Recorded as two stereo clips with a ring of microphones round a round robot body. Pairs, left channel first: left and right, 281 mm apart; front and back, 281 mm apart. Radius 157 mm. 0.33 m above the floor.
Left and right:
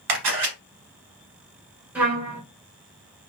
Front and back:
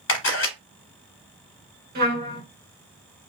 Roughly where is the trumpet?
Behind.